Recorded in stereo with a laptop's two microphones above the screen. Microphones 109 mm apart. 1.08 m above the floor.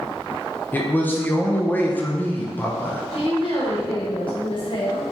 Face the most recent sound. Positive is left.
turn(degrees=50)  # may be behind; listen again after turning